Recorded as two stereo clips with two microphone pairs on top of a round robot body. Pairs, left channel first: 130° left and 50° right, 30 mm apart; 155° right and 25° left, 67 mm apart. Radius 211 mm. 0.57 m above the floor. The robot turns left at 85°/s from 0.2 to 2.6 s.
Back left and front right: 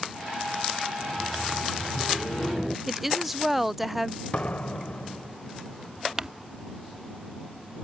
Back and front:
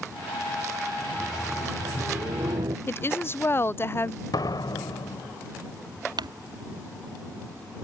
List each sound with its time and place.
1.0 s laughter: 175° left; by 2.8 s 40° left
2.9 s a woman speaking: 120° right
4.3 s a door slam: straight behind
6.2 s crumpling: 20° left